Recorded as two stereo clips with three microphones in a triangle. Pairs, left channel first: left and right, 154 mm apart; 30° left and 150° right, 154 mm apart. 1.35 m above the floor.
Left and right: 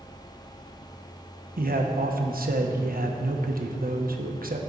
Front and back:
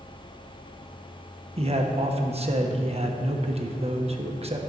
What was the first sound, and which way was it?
A man speaking, 105° right.